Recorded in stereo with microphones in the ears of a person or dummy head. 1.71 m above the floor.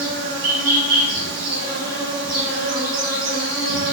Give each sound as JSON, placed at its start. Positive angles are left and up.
{"t": 0.0, "sound": "an insect", "side_deg": -50, "distance_m": 0.8}